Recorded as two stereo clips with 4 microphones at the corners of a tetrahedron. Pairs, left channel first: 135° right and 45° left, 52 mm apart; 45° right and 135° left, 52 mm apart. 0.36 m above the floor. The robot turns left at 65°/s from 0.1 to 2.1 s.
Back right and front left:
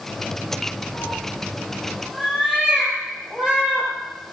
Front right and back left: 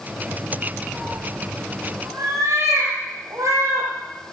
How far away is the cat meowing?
About 9.5 m.